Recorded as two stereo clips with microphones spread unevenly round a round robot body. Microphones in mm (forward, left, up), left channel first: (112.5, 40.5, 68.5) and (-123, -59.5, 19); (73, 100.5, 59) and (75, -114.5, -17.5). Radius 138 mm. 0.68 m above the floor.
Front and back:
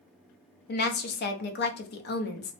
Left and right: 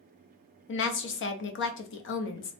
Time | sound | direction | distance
0.7 | a woman speaking | 65° left | 0.6 m